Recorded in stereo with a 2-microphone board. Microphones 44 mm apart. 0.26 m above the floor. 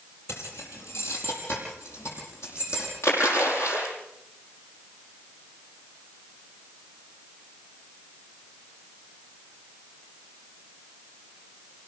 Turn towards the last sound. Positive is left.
turn(degrees=85)